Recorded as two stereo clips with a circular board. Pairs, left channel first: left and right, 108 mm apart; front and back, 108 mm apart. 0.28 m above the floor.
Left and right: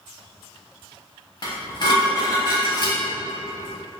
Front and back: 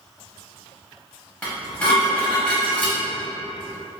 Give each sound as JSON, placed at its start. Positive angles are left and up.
{"t": 1.4, "sound": "dishes clattering", "azimuth_deg": 75, "distance_m": 1.0}